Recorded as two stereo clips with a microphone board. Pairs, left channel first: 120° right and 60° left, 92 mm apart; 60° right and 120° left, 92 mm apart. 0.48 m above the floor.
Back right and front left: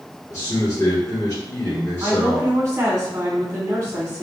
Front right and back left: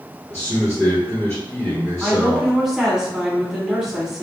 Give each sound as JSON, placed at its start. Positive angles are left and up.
{"t": 0.3, "sound": "a man speaking", "azimuth_deg": -105, "distance_m": 1.2}
{"t": 2.0, "sound": "a woman speaking", "azimuth_deg": 35, "distance_m": 1.5}